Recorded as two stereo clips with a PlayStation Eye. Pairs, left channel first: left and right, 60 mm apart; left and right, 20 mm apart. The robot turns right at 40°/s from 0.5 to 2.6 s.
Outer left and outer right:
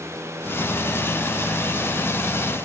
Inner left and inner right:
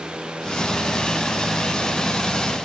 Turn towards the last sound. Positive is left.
No sound to turn to.